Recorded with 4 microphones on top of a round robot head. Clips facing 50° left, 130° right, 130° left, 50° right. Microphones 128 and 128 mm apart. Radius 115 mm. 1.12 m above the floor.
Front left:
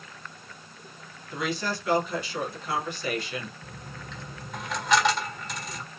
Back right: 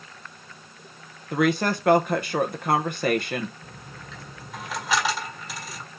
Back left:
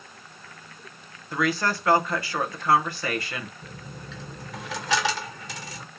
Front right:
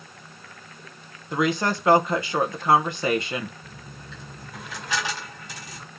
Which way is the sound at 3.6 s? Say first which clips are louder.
Front left 1 dB, back left 2 dB; 140° left.